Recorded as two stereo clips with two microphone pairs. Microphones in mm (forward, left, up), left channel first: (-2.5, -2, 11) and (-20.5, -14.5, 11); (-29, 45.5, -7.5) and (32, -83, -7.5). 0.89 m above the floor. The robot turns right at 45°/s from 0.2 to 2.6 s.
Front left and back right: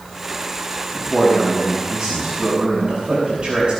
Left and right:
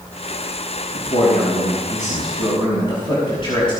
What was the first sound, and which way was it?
A man speaking, 90° left.